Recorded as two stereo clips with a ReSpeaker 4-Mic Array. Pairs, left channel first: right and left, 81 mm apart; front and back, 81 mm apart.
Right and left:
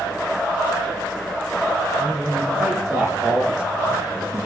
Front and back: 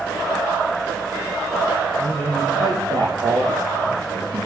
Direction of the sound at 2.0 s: 165° left.